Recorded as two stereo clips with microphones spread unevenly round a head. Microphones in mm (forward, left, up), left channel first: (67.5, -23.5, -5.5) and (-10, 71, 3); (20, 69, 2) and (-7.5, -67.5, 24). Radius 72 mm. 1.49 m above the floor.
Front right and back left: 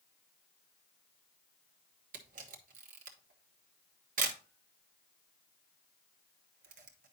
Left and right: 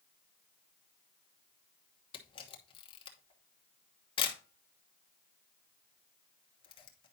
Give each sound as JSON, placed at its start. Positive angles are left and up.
{"t": 2.1, "sound": "a camera shutter", "azimuth_deg": 135, "distance_m": 1.0}